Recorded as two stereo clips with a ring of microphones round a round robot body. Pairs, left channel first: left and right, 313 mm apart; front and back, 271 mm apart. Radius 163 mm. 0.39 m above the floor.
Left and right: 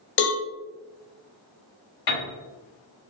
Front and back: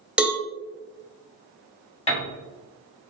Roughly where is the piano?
Ahead left.